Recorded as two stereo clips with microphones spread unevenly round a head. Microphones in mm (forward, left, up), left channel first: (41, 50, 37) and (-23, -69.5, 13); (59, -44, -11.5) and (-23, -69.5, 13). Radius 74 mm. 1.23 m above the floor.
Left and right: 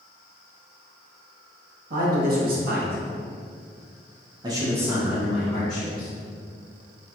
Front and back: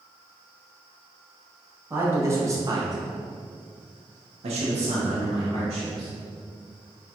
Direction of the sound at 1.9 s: 95° right.